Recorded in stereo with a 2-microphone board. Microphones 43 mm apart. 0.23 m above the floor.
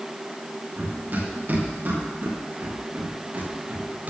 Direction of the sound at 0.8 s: 50° right (ahead or behind).